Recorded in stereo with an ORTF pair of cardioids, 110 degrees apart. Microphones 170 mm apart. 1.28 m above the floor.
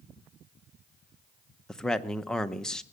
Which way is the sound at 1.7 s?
5° left.